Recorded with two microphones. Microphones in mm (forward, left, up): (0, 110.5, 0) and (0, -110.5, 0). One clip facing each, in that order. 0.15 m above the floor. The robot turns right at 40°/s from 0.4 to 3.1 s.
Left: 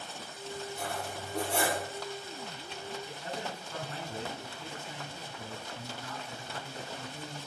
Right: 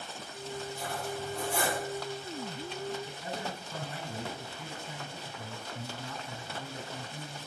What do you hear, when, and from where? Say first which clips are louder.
0.8 s cutlery clinking: right 2 dB; 55° left, 2.5 m; by 1.8 s 100° left, 2.5 m
3.1 s a man speaking: right 1 dB; 10° right (ahead or behind), 1.7 m; by 7.5 s 15° right (ahead or behind), 1.7 m